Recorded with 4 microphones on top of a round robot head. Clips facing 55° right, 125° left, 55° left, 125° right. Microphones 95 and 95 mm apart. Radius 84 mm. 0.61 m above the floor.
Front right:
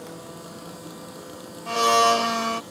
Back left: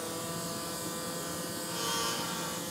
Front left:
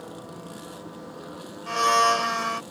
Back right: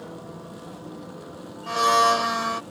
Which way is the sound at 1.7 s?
40° right.